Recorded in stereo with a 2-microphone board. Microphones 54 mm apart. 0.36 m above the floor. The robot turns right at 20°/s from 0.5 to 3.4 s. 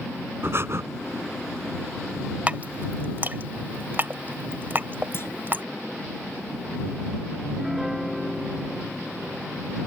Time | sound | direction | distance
0.4 | breathing | 50° right (ahead or behind) | ?
2.5 | dripping | 30° right (ahead or behind) | ?
5.1 | a clunk | 50° left (ahead or behind) | ?
7.4 | a piano | centre (ahead or behind) | ?